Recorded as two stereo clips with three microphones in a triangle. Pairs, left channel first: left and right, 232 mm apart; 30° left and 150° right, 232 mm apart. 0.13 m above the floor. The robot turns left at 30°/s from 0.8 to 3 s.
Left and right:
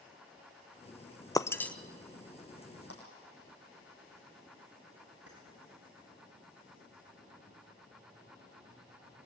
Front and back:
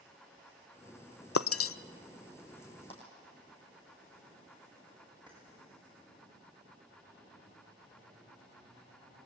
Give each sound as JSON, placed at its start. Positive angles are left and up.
{"t": 1.4, "sound": "breaking glass", "azimuth_deg": 15, "distance_m": 0.5}
{"t": 2.9, "sound": "a clap", "azimuth_deg": 95, "distance_m": 5.5}
{"t": 5.3, "sound": "keys jangling", "azimuth_deg": -80, "distance_m": 8.5}